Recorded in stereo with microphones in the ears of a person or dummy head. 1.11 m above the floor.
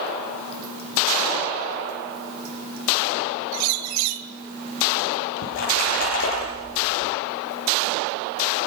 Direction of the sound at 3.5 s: 80° right.